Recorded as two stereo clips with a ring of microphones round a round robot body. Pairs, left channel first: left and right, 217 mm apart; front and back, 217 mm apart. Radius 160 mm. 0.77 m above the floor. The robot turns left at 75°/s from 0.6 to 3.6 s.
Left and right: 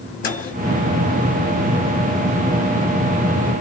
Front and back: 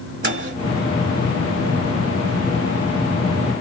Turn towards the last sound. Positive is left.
turn(degrees=-80)